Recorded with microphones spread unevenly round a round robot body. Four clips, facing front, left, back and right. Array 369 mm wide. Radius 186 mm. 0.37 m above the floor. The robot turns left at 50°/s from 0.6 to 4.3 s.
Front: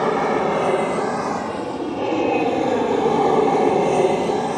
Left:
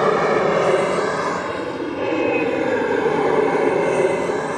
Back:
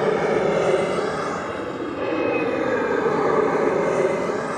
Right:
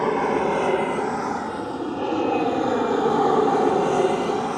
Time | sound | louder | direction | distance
0.0 | an aircraft | left 4 dB, front 1 dB | 115° left | ?